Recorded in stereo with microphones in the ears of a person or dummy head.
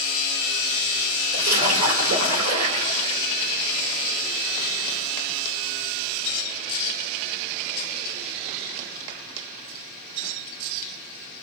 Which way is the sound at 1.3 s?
80° right.